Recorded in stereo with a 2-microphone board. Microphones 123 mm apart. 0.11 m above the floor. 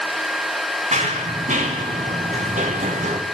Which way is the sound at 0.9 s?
75° right (ahead or behind).